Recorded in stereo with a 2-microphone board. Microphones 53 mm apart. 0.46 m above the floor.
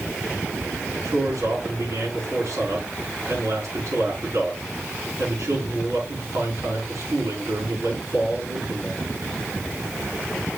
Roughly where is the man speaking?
Right.